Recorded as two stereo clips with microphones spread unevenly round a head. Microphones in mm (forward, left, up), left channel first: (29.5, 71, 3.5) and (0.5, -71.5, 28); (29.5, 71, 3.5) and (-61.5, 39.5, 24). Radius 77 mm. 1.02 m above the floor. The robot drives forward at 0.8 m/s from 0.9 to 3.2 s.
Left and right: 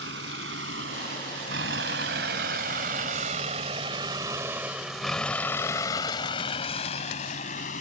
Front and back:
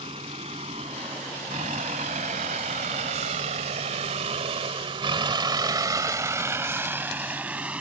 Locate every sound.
0.0 s a vehicle: 105° right; by 7.8 s 125° left